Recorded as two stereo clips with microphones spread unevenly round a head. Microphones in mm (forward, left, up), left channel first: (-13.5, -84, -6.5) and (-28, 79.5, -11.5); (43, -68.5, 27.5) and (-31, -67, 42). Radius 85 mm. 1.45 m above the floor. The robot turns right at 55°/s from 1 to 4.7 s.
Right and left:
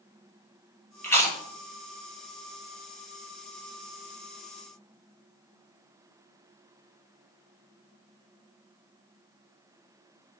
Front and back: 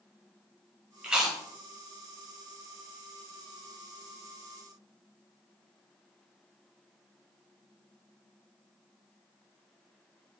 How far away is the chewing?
About 1.3 m.